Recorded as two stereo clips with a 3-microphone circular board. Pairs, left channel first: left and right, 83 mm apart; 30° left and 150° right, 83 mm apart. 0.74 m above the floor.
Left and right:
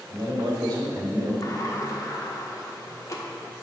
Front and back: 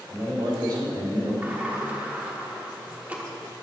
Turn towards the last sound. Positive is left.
turn(degrees=140)